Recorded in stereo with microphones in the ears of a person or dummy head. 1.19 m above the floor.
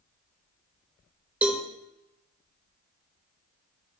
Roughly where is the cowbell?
Centre.